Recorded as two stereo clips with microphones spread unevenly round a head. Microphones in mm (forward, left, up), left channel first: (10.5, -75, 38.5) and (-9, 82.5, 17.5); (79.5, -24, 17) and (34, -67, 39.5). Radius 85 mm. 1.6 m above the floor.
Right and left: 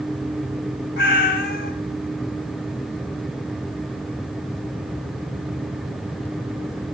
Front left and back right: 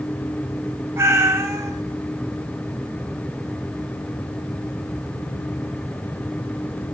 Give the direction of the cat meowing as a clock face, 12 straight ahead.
4 o'clock.